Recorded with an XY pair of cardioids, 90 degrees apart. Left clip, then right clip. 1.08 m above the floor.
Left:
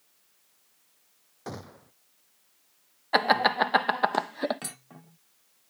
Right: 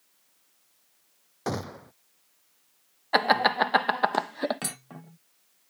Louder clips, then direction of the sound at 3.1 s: Even; 5° right.